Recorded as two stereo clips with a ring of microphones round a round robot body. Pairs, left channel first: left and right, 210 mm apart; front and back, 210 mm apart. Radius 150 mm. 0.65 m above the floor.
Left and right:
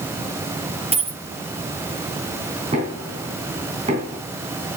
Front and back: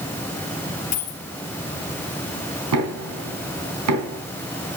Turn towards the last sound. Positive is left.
turn(degrees=-160)